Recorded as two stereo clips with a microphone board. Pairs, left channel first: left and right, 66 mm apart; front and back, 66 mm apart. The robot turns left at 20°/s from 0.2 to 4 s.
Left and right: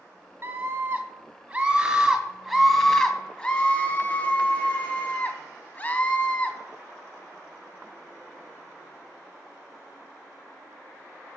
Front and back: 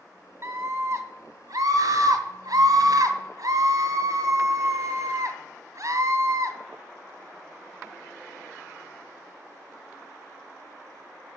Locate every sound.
0.4 s a scream: 135° right, 2.5 m; by 6.6 s 150° left, 2.5 m